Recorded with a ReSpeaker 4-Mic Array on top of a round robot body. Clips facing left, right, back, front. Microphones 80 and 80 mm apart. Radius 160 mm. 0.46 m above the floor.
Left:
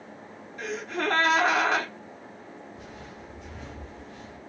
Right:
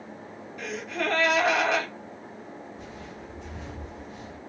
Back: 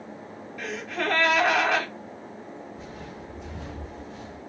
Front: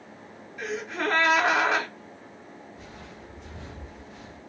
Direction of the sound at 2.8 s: 115° left.